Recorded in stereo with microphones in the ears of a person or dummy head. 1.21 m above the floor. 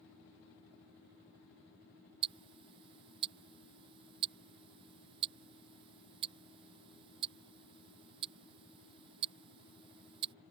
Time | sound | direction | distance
2.2 | ticking | 30° right (ahead or behind) | ?